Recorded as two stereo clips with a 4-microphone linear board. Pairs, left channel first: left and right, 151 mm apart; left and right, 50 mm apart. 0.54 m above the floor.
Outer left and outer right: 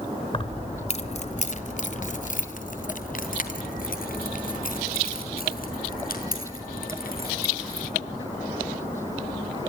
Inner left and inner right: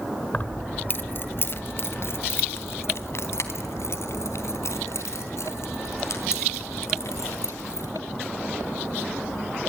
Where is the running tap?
I don't hear a running tap.